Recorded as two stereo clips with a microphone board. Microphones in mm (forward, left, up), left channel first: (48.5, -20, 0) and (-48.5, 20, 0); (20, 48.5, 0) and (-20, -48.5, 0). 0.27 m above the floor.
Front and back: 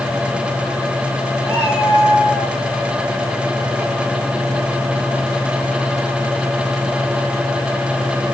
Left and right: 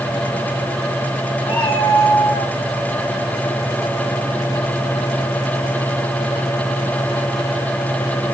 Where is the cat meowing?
40° left, 7.5 m.